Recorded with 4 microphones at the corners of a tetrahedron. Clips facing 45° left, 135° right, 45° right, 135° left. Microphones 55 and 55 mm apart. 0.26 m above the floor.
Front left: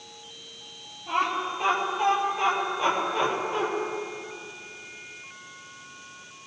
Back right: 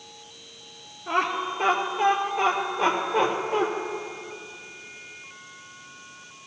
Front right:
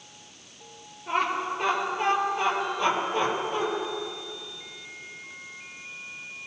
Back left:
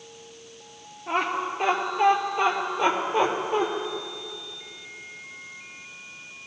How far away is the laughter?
About 3.5 m.